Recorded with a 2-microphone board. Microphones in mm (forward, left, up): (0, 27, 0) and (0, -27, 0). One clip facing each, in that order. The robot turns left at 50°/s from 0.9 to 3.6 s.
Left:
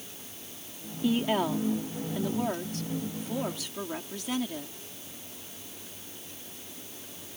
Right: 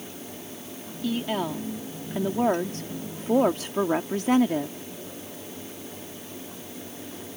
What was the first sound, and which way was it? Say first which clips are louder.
A woman speaking: left 1 dB; 25° left.